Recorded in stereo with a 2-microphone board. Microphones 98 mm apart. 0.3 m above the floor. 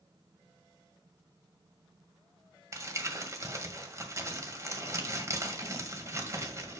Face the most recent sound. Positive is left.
turn(degrees=-30)  # may be behind; listen again after turning